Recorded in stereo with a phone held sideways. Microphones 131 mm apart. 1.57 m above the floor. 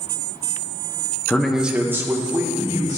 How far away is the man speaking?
About 0.6 m.